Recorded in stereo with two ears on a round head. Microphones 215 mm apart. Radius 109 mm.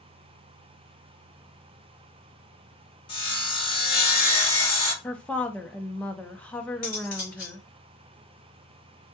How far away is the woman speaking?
About 0.6 m.